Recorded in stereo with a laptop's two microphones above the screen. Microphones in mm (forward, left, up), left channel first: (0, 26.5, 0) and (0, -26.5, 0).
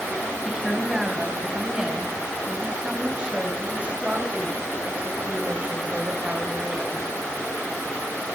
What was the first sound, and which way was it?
A woman speaking, 10° right (ahead or behind).